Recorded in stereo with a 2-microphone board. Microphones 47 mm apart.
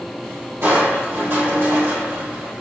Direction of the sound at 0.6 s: 50° right (ahead or behind).